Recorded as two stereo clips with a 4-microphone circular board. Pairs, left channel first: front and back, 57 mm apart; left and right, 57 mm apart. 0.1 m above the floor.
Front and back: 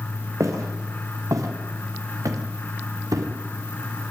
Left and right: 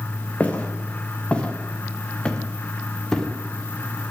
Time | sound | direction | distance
0.4 | footsteps | 155° left | 4.5 m